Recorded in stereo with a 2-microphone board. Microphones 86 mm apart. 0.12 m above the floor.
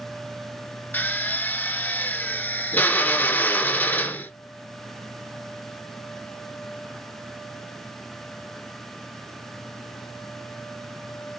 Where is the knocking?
No knocking in this recording.